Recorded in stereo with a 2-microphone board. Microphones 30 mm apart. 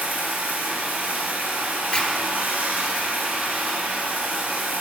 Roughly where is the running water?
Right.